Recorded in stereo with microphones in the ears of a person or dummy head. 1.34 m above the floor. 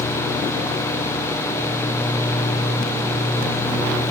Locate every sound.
Only background noise.